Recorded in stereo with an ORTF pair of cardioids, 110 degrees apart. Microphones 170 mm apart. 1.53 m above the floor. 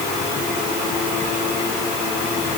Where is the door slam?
I don't hear a door slam.